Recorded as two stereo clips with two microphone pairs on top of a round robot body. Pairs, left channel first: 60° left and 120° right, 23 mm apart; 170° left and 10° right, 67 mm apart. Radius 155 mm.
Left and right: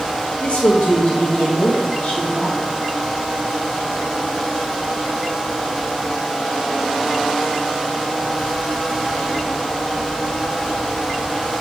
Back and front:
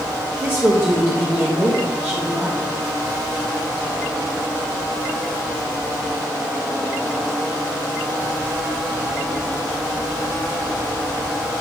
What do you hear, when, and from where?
0.4 s a woman speaking: 45° left, 1.6 m